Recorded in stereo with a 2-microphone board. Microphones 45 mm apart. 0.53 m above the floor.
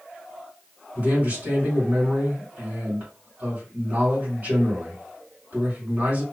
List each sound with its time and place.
0.9 s a man speaking: 50° right (ahead or behind), 2 m